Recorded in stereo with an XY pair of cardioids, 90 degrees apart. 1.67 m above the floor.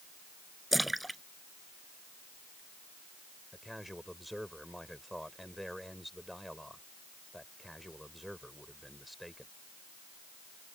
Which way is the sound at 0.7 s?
10° right.